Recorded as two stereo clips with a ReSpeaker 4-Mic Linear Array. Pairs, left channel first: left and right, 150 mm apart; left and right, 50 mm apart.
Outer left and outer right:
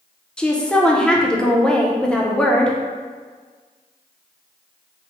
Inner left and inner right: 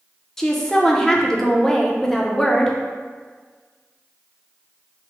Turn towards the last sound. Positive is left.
turn(degrees=5)  # may be behind; listen again after turning